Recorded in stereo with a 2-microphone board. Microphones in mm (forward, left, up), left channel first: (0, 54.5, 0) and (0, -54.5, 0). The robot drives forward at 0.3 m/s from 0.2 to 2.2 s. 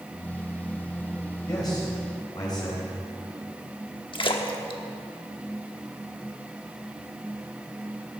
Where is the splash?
50° left (ahead or behind), 1.1 m.